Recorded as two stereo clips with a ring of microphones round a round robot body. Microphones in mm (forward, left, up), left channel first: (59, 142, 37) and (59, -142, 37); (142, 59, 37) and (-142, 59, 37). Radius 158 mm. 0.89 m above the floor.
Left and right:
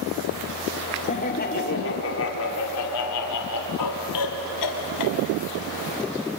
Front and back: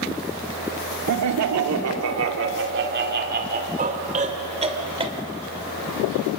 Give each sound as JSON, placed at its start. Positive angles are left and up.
{"t": 1.1, "sound": "laughter", "azimuth_deg": 160, "distance_m": 2.0}